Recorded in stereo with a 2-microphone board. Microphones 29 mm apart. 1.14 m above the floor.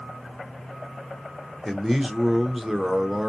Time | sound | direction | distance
1.6 | a man speaking | 10° right (ahead or behind) | 0.9 m